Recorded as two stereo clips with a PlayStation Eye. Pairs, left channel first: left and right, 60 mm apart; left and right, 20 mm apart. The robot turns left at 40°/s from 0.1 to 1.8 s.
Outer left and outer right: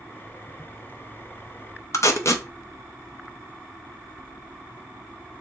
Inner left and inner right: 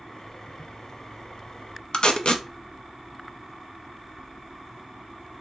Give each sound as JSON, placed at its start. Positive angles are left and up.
{"t": 1.9, "sound": "tape being pulled", "side_deg": 50, "distance_m": 0.6}